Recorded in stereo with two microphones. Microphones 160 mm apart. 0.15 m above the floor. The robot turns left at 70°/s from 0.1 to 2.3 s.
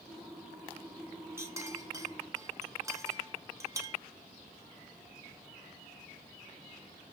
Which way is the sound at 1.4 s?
15° right (ahead or behind).